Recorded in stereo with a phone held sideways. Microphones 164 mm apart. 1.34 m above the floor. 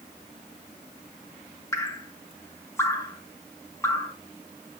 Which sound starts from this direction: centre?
Dripping, at 1.7 s.